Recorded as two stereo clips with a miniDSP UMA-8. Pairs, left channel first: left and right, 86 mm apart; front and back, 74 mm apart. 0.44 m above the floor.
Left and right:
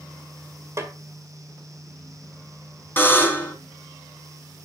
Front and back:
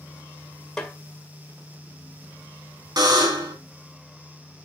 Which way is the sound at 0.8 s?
80° right.